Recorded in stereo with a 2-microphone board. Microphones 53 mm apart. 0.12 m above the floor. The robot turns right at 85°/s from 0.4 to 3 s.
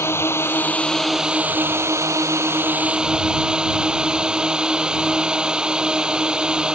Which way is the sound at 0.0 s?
120° left.